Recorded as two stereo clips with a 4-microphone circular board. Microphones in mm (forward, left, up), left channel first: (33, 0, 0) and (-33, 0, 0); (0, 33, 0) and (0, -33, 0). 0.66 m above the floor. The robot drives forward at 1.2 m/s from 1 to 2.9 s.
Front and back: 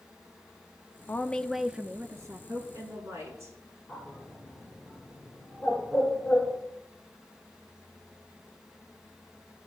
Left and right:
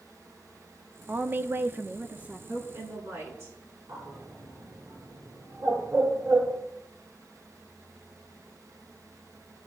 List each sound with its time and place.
1.1 s a woman speaking: 45° right, 1.0 m; by 2.4 s 155° right, 1.3 m
2.5 s a woman speaking: 135° right, 8.5 m
3.9 s a bird: 90° right, 9 m